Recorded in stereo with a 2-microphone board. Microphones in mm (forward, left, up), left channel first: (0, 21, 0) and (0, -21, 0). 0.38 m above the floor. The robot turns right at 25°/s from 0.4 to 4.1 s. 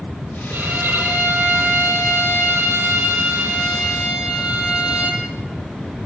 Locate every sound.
0.5 s a violin: 115° right, 8.5 m; by 5.2 s 25° right, 8.5 m